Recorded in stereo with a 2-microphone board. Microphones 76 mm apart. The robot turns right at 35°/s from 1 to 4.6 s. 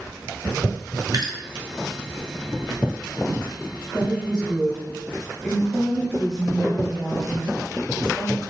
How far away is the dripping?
About 0.7 m.